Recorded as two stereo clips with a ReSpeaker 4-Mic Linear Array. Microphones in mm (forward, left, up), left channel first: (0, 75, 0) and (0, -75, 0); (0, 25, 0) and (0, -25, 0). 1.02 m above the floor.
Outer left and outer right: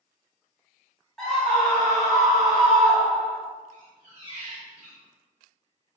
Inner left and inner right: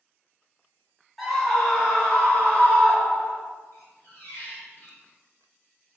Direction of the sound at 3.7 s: 55° left (ahead or behind).